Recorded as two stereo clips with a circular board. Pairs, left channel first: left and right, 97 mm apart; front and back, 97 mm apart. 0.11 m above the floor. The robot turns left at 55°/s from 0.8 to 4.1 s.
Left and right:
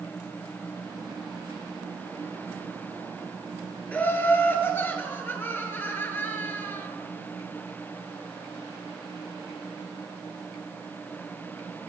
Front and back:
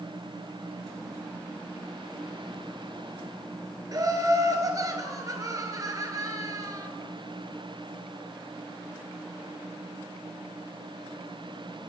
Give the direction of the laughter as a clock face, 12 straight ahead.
7 o'clock.